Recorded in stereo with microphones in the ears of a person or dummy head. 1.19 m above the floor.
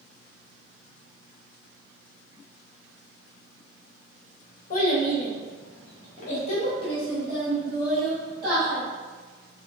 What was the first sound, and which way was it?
A child speaking, 55° left (ahead or behind).